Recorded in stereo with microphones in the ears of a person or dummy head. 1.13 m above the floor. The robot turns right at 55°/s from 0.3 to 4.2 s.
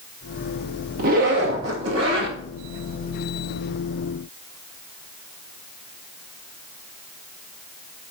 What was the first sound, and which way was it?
A zipper, 135° right.